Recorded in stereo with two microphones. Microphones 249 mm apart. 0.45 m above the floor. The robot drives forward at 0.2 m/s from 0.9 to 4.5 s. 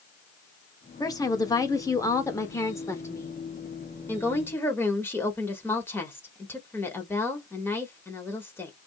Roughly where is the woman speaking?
Centre.